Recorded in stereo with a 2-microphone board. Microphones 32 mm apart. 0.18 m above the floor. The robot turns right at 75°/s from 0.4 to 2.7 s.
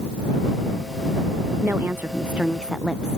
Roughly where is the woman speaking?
Right.